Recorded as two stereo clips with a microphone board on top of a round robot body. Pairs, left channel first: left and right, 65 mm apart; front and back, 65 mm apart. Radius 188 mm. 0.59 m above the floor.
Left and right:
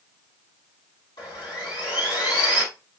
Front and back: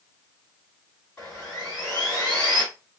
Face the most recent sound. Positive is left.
turn(degrees=75)